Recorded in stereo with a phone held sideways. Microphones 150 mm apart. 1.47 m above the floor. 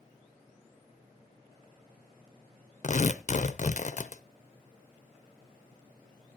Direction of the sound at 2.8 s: 55° left (ahead or behind).